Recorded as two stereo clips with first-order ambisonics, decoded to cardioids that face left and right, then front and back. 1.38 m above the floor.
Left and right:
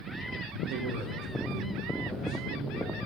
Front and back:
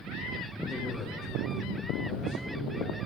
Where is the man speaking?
100° right, 0.7 m; by 3.0 s 25° right, 2.5 m.